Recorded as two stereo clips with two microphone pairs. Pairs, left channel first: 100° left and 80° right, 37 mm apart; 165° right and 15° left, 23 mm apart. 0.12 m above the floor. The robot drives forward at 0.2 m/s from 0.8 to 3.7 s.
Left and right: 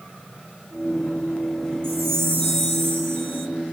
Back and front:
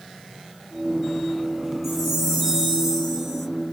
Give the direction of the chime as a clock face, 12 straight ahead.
2 o'clock.